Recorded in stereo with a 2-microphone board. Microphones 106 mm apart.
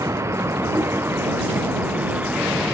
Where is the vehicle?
25° right (ahead or behind); by 2.8 s 10° right (ahead or behind).